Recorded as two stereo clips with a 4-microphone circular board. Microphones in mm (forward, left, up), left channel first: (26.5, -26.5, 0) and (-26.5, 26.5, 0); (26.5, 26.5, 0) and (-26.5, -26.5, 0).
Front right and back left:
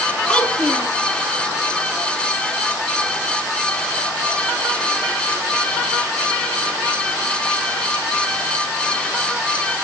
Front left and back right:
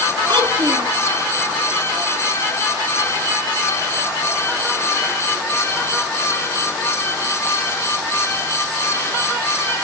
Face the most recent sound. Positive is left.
turn(degrees=-125)